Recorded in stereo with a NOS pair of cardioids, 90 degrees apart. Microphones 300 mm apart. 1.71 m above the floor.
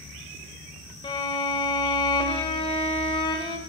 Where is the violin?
15° left, 1.8 m.